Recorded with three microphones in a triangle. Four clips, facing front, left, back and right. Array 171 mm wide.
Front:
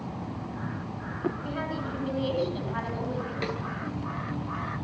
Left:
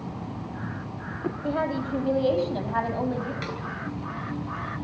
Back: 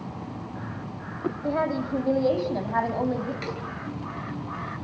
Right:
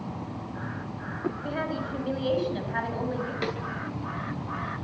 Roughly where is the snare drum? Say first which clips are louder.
Right 3 dB, front 1 dB; ahead right.